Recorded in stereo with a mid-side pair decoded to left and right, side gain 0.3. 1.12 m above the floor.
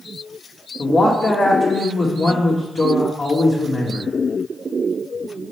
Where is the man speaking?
60° left, 1.8 m.